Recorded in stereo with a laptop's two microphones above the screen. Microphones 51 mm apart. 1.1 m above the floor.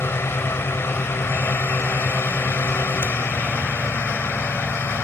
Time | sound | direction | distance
0.0 | a fan | 55° left (ahead or behind) | ?